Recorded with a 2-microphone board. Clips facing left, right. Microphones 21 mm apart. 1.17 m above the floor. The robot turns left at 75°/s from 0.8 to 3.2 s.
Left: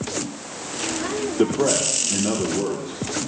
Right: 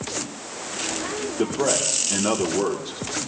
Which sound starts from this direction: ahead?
A man speaking, at 1.4 s.